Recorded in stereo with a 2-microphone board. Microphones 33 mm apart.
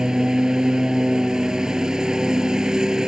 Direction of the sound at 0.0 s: 25° right (ahead or behind).